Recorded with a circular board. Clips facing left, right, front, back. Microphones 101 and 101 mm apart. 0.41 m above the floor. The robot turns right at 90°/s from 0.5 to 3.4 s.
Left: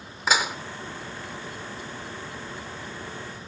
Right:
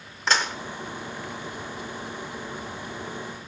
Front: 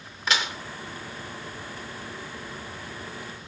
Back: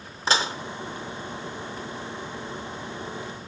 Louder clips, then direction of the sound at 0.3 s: Left 1 dB, back 3 dB; 165° left.